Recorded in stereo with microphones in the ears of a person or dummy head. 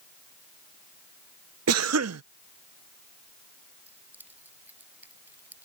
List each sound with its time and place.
1.7 s a cough: 80° right
3.9 s keys jangling: 10° right (ahead or behind)